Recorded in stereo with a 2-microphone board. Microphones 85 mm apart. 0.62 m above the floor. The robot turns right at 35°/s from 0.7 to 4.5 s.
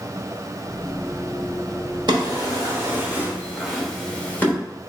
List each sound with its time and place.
2.1 s a drawer: 60° right (ahead or behind), 1.0 m; by 4.5 s 25° left (ahead or behind), 1.0 m